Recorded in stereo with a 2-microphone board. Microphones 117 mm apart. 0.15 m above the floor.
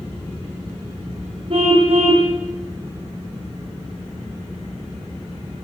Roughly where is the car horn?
Right.